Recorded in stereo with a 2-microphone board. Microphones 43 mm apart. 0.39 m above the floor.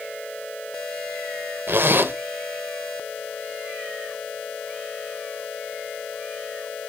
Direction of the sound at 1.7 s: 55° right (ahead or behind).